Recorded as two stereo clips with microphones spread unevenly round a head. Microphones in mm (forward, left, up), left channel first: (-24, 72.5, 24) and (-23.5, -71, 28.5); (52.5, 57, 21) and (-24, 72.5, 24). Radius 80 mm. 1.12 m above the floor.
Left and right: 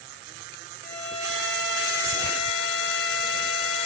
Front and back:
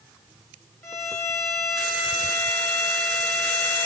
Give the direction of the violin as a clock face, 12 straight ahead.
10 o'clock.